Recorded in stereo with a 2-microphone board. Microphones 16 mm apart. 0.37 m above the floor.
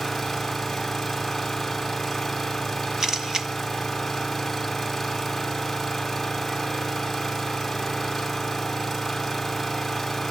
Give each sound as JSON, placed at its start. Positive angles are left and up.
{"t": 0.0, "sound": "an engine running", "side_deg": 0, "distance_m": 2.5}
{"t": 3.0, "sound": "a camera shutter", "side_deg": -35, "distance_m": 1.4}